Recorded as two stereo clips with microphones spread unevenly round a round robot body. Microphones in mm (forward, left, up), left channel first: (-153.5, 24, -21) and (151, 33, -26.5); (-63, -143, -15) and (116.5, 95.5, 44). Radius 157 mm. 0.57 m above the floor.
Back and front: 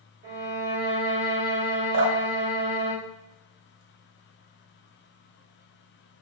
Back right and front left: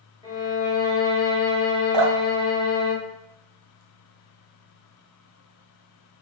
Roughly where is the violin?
Ahead right.